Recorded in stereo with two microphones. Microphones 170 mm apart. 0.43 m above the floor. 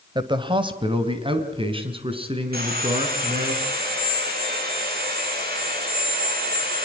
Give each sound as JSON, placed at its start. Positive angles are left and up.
{"t": 0.1, "sound": "a man speaking", "side_deg": -25, "distance_m": 1.7}
{"t": 2.5, "sound": "sawing", "side_deg": -65, "distance_m": 6.0}